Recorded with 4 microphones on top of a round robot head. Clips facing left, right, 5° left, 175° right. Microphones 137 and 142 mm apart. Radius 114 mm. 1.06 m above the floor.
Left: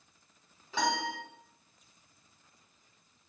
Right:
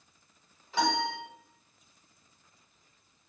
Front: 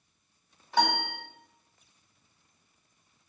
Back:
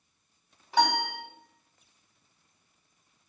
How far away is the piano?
About 1.3 m.